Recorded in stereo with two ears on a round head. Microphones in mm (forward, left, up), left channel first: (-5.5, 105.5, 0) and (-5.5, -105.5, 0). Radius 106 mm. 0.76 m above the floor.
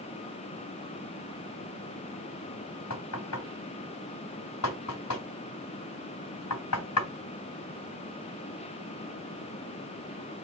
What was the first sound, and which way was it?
Knocking, 85° left.